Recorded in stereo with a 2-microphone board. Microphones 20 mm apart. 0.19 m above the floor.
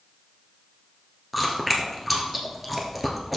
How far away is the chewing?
About 1.4 m.